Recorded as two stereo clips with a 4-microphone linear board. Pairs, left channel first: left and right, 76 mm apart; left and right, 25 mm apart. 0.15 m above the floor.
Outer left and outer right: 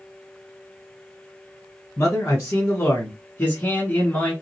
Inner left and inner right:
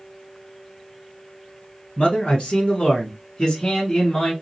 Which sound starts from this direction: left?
A man speaking, at 2.0 s.